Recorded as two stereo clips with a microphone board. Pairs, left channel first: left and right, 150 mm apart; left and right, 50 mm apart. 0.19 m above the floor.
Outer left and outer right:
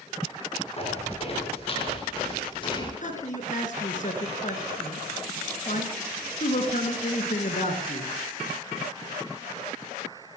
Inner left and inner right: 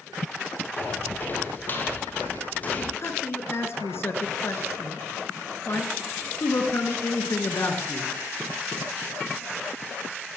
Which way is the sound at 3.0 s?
55° left (ahead or behind).